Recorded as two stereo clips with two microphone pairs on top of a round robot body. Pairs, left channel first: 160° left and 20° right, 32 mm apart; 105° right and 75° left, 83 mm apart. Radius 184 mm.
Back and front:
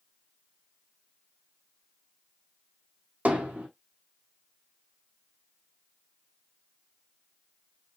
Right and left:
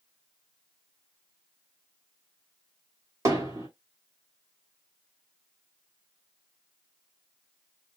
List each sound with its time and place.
3.2 s hammering: 20° left, 1.9 m